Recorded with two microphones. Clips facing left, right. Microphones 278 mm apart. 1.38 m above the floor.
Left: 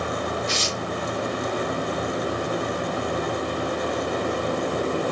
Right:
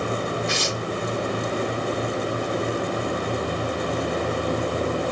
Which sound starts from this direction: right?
Tearing paper, at 0.5 s.